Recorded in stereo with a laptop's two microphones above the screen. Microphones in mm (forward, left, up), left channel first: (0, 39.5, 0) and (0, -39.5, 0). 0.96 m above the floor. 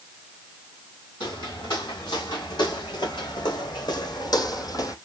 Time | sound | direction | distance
1.2 | footsteps | 70° left (ahead or behind) | 4 m